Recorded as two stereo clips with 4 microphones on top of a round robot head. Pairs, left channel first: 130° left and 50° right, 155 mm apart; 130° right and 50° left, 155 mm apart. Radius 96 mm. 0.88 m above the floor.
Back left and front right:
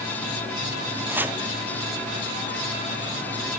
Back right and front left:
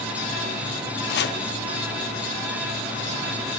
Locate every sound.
1.1 s chopping: 125° right, 1.1 m